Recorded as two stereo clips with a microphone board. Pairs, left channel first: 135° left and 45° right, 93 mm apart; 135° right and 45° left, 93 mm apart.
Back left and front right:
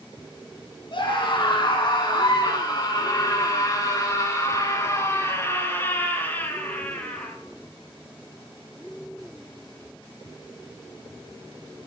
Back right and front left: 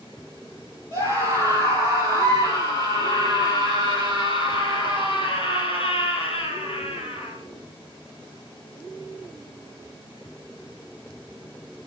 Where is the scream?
165° left, 6.5 m; by 7.3 s 145° right, 5.5 m.